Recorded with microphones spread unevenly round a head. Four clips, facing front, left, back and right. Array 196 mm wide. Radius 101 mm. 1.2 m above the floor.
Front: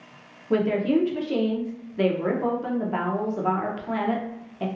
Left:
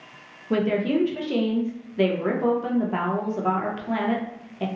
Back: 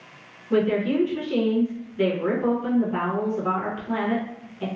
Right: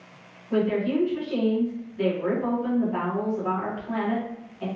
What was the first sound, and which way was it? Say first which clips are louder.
A woman speaking: left 1 dB, even; 55° left.